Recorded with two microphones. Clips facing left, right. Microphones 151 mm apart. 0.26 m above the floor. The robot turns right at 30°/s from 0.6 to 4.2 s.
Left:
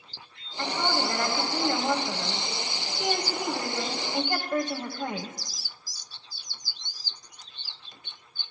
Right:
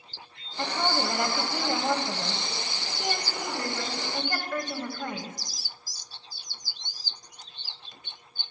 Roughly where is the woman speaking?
Right.